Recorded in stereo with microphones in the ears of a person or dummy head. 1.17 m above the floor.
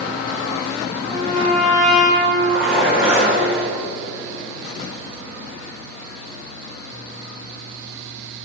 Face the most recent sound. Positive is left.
turn(degrees=-10)  # may be behind; listen again after turning